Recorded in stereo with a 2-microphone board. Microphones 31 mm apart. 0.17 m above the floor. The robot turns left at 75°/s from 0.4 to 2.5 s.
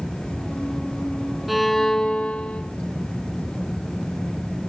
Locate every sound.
1.5 s a violin: 175° right, 0.8 m; by 2.6 s 110° left, 0.8 m